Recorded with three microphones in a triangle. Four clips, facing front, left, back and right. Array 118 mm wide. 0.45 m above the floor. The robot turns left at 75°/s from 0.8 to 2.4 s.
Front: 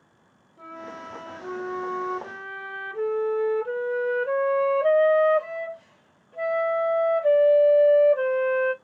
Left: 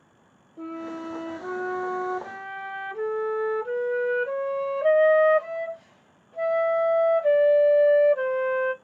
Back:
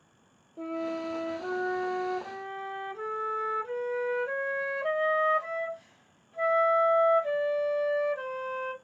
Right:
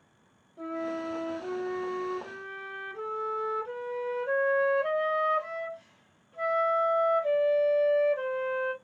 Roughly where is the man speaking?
I don't hear a man speaking.